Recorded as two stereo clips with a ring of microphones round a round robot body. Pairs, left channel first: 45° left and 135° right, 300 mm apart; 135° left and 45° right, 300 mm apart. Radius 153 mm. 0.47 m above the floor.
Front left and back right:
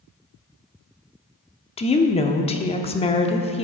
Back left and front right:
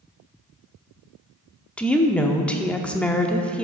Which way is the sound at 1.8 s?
55° left.